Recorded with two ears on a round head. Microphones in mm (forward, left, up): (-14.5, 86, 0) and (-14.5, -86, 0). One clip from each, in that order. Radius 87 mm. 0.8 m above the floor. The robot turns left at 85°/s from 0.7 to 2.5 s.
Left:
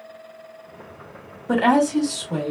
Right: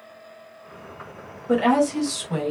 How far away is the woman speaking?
About 1.2 m.